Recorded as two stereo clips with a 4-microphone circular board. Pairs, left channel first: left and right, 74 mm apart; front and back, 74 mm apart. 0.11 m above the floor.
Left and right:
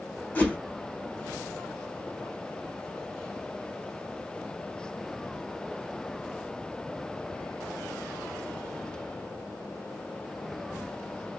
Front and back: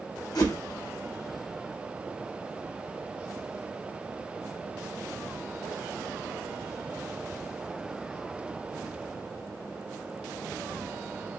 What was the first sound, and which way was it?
A whoosh, 20° left.